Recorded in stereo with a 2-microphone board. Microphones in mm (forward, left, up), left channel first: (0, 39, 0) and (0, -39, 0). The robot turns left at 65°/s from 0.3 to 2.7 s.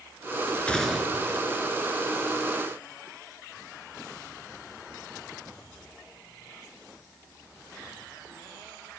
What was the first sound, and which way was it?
A gunshot, 15° left.